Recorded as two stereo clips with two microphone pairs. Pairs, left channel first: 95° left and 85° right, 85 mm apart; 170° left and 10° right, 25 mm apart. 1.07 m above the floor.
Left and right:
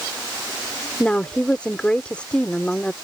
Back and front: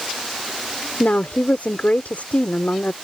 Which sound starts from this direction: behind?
A woman speaking, at 1.0 s.